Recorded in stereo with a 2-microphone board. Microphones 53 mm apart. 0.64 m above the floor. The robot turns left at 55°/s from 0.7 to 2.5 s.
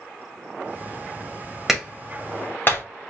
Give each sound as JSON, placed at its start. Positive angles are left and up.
{"t": 1.7, "sound": "a clap", "side_deg": -5, "distance_m": 2.5}